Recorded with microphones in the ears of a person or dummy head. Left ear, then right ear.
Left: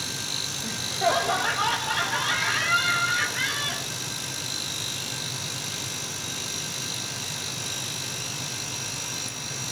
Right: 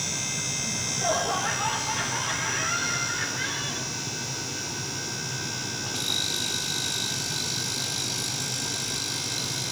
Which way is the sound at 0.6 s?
75° left (ahead or behind).